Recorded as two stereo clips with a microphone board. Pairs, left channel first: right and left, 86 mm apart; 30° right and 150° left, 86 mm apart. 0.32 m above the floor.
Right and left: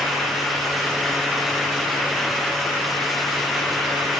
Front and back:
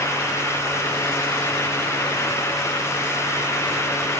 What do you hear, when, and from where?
Only background noise.